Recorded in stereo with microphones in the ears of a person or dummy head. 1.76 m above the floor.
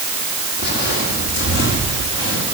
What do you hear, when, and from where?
0.6 s footsteps: 60° left (ahead or behind), 4.5 m; by 2.5 s 75° left (ahead or behind), 6.5 m